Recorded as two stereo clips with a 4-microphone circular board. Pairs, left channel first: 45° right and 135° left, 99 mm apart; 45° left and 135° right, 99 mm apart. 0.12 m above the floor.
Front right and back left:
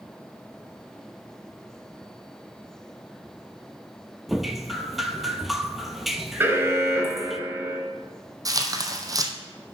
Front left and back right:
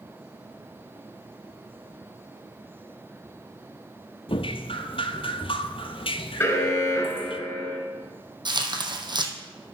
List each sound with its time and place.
4.3 s dripping: 45° left, 0.8 m
6.4 s an alarm: 90° left, 2 m
8.4 s tearing paper: 170° right, 1.3 m